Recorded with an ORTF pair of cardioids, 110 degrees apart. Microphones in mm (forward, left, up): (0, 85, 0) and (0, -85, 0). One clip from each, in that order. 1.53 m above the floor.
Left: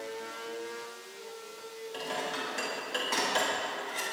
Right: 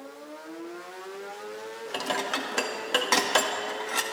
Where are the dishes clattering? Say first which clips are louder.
Right 6 dB; 60° right, 1.9 m.